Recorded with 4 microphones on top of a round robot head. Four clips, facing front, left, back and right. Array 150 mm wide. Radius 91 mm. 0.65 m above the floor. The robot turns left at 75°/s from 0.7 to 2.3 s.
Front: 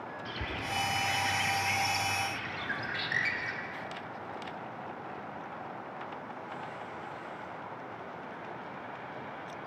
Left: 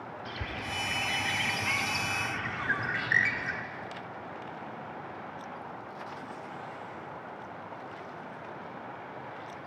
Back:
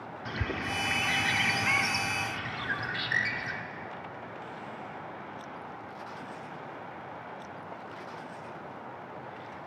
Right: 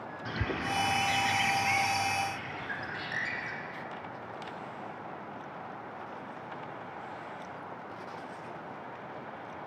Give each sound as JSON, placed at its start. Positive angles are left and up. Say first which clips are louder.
{"t": 0.2, "sound": "a bird", "louder": "right 7 dB, back 5 dB", "azimuth_deg": -130, "distance_m": 1.6}